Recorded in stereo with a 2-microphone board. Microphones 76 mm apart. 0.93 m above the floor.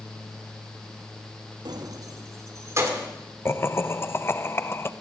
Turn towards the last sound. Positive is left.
turn(degrees=30)  # may be behind; listen again after turning